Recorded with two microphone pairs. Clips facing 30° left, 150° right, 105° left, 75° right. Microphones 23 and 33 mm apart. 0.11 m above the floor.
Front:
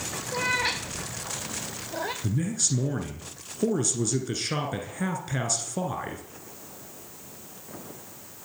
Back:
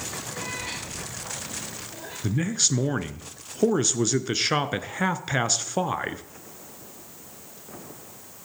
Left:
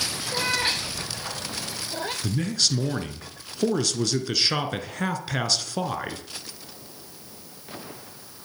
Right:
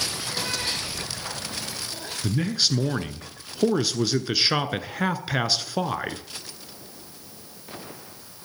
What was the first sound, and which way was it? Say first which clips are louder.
A cat meowing: front 10 dB, left 6 dB; 55° left.